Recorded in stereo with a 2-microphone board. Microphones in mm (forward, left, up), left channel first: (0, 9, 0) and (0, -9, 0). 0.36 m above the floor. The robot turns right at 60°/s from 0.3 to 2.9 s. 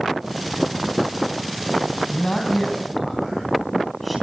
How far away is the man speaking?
About 3 m.